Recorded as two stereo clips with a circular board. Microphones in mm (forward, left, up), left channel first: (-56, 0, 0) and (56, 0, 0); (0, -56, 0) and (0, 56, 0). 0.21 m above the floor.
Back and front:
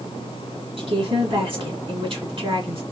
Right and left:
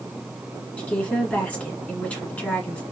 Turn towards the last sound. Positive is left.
turn(degrees=-15)